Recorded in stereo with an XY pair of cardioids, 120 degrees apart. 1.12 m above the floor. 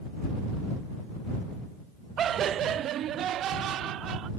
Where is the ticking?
I don't hear ticking.